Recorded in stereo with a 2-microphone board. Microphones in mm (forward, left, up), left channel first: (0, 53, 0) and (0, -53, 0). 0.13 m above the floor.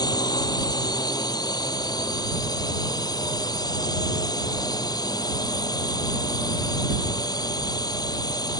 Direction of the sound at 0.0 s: 40° left (ahead or behind).